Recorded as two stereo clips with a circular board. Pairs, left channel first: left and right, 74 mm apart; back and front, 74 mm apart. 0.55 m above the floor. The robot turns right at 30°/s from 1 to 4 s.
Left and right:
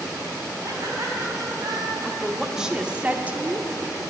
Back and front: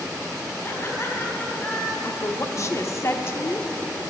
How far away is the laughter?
About 3.5 m.